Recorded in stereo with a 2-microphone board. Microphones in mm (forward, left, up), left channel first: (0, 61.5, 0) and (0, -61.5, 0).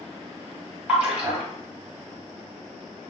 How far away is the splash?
About 1.2 m.